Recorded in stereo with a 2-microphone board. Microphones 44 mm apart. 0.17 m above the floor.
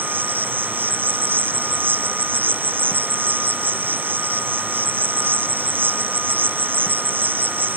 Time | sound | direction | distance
0.0 | an insect | 50° right (ahead or behind) | ?